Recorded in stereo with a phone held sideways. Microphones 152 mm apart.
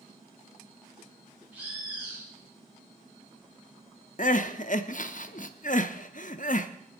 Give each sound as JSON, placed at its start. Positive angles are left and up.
{"t": 1.5, "sound": "a bird", "side_deg": -10, "distance_m": 5.5}
{"t": 4.2, "sound": "crying", "side_deg": 60, "distance_m": 0.9}